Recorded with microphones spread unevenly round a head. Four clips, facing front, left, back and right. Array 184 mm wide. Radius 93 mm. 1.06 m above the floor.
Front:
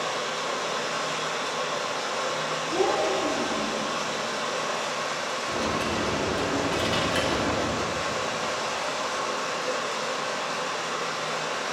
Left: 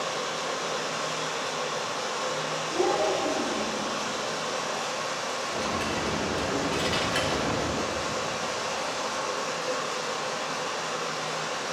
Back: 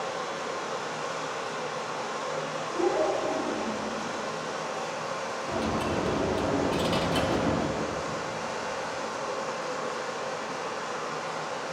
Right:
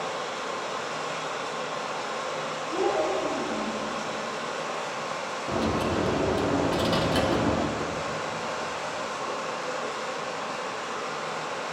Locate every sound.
0.0 s running water: 5° left, 4 m
2.7 s a child speaking: 20° right, 4 m
5.5 s a dropped coin: 95° right, 0.7 m